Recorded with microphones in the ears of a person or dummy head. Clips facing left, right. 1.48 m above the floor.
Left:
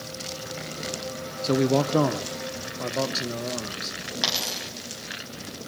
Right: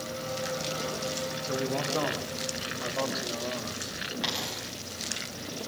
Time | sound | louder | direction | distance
1.4 | a man speaking | left 11 dB | 70° left (ahead or behind) | 0.9 m
4.2 | a dropped coin | left 2 dB | 65° left (ahead or behind) | 4.5 m